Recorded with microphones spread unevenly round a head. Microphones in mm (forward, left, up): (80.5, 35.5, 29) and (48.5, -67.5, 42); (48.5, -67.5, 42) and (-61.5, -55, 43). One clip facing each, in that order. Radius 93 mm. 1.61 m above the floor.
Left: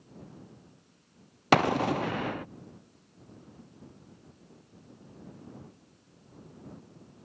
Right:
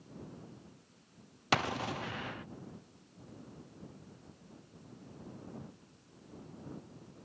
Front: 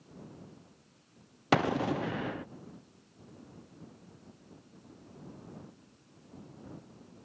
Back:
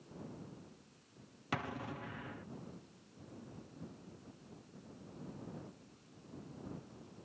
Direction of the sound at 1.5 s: 30° left.